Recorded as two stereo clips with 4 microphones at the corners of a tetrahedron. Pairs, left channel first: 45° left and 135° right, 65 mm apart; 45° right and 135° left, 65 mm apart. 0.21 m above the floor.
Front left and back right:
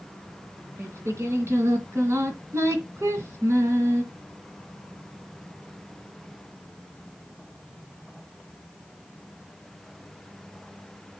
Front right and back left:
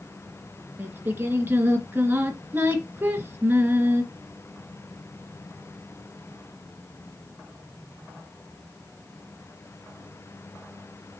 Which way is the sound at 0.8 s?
170° right.